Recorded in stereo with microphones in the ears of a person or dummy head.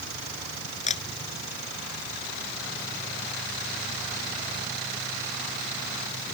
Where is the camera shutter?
40° left (ahead or behind).